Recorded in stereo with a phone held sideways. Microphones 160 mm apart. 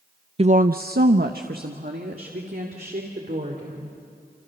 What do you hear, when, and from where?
0.4 s a woman speaking: 40° right (ahead or behind), 0.5 m; by 4.0 s 65° right (ahead or behind), 4.5 m